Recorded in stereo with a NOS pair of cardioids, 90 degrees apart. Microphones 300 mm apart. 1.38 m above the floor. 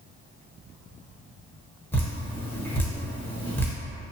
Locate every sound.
1.9 s dripping: 5° left, 0.8 m